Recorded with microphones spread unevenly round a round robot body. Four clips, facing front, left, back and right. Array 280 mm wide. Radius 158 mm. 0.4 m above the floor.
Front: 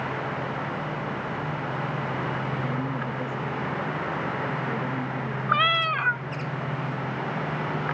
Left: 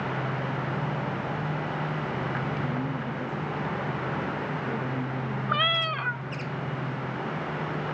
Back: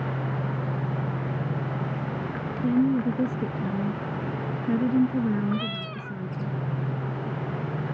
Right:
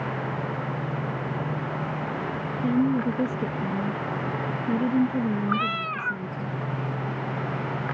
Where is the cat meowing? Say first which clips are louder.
Right 1 dB, front 7 dB; 25° left.